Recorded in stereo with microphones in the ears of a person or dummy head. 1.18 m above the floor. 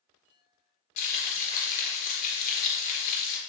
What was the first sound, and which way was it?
Frying, 55° left (ahead or behind).